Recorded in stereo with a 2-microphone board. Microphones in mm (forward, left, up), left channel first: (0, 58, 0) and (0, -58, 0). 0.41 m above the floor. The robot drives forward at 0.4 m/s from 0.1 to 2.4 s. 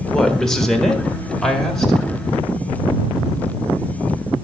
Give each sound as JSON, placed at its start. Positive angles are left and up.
{"t": 0.1, "sound": "a woman speaking", "side_deg": 5, "distance_m": 1.4}